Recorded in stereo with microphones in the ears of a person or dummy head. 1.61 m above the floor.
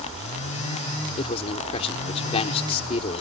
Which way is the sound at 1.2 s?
35° left (ahead or behind).